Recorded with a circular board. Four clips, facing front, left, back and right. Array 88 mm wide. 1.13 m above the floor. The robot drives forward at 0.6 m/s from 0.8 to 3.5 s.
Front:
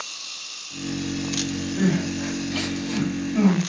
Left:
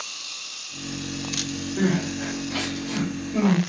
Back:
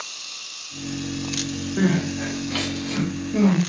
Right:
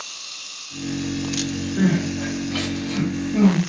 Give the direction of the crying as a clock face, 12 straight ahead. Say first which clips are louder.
Right 3 dB, back 2 dB; 6 o'clock.